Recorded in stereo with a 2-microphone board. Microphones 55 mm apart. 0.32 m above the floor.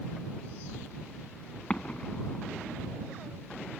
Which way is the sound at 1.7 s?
20° left (ahead or behind).